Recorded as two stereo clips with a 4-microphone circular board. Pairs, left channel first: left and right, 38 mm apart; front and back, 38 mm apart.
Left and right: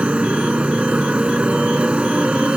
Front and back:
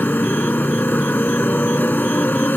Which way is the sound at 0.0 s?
30° right.